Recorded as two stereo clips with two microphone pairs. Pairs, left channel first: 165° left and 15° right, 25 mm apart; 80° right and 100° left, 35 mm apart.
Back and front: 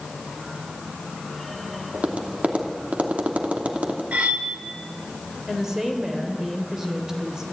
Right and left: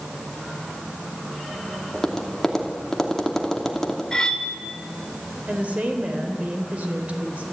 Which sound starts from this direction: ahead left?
A woman speaking, at 5.5 s.